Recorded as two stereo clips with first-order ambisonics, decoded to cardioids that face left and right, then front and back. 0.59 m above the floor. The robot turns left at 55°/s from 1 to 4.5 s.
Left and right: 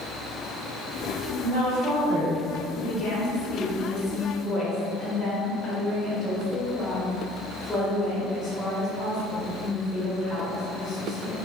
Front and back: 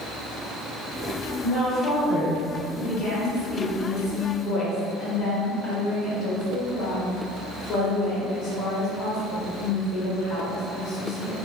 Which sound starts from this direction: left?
A woman speaking, at 2.8 s.